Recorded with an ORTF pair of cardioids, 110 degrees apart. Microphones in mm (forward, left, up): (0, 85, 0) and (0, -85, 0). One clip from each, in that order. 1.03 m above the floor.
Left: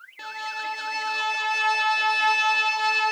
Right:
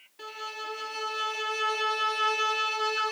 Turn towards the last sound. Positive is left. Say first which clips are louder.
# left 6 dB
turn(degrees=50)